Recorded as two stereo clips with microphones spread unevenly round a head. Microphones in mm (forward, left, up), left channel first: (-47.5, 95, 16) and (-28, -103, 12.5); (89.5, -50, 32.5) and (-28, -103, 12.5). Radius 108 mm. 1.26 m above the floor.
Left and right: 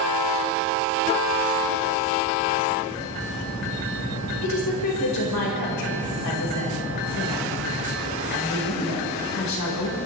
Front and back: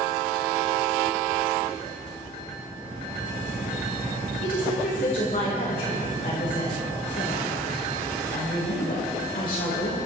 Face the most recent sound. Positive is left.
turn(degrees=75)